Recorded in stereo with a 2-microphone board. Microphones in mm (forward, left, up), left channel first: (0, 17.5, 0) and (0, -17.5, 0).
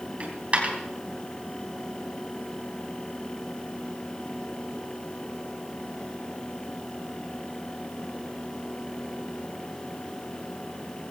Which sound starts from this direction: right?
A dropped coin, at 0.2 s.